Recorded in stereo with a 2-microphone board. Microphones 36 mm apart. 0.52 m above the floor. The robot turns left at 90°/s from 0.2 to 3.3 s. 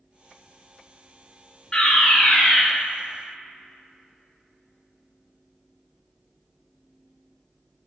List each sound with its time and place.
1.7 s a fire alarm: 20° left (ahead or behind), 1.7 m; by 2.6 s 15° left (ahead or behind), 1.7 m